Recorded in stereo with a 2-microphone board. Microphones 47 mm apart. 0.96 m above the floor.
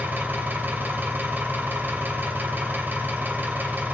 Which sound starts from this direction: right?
An engine running, at 0.0 s.